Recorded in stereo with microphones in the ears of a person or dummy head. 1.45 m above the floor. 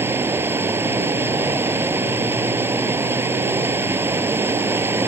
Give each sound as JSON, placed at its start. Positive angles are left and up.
{"t": 0.0, "sound": "running water", "side_deg": -10}